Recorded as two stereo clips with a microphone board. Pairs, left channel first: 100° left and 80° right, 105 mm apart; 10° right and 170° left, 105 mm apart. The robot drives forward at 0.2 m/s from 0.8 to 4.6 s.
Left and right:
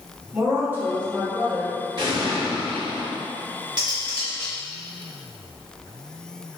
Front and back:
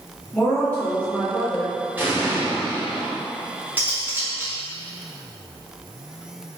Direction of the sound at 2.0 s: 115° right.